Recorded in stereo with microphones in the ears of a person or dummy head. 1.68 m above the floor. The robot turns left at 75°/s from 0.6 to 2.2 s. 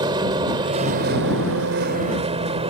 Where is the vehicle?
30° right; by 2.7 s 150° right.